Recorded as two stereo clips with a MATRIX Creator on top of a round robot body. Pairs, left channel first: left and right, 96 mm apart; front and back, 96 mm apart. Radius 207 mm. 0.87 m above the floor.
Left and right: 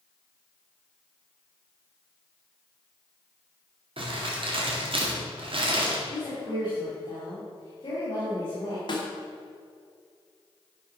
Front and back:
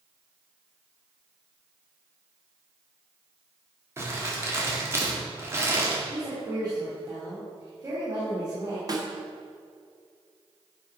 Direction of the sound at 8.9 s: 130° left.